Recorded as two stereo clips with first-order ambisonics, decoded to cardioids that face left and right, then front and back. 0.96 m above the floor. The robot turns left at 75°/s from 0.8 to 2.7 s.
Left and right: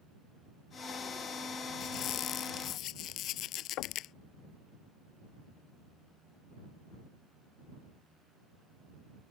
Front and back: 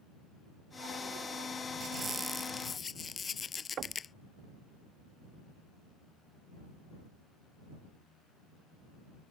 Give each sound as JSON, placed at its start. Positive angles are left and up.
{"t": 1.8, "sound": "a squeak", "azimuth_deg": 135}
{"t": 3.8, "sound": "knocking", "azimuth_deg": 125}